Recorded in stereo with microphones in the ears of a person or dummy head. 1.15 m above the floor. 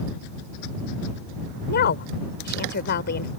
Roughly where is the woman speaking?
Left.